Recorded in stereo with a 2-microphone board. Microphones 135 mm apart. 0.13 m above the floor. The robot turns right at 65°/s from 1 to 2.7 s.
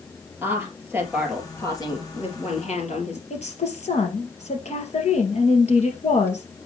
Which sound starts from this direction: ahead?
A woman speaking, at 0.4 s.